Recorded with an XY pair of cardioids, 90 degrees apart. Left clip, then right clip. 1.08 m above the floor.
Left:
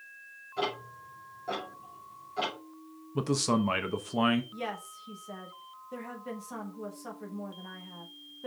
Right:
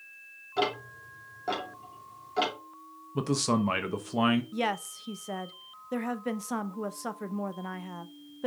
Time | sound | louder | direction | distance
0.6 | ticking | right 4 dB | 70° right | 3 m
3.1 | a man speaking | even | straight ahead | 0.8 m
4.5 | a woman speaking | right 7 dB | 70° right | 0.7 m